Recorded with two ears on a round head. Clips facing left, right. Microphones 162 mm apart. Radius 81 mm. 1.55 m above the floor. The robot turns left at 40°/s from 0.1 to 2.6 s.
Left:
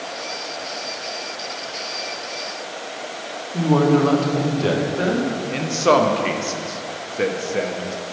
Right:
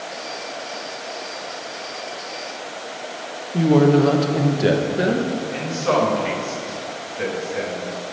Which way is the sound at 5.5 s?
55° left (ahead or behind).